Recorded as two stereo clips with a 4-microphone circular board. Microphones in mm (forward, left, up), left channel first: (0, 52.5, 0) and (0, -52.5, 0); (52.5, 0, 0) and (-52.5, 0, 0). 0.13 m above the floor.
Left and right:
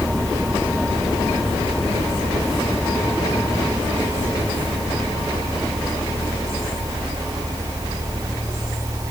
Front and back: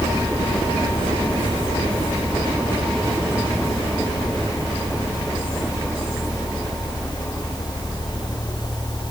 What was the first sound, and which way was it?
Only background noise.